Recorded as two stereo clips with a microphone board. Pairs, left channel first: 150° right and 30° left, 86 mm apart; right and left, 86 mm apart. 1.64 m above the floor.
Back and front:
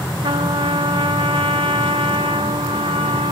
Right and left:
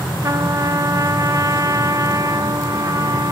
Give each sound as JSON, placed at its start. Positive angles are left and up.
{"t": 0.2, "sound": "a trumpet", "azimuth_deg": 40, "distance_m": 0.9}